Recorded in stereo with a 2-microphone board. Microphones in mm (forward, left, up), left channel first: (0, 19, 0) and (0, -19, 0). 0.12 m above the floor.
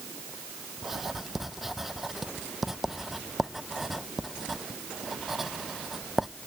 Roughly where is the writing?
Centre.